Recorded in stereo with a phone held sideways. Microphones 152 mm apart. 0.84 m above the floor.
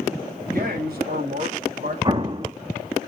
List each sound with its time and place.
0.5 s a man speaking: 75° right (ahead or behind), 4 m
2.0 s an explosion: 30° right (ahead or behind), 0.9 m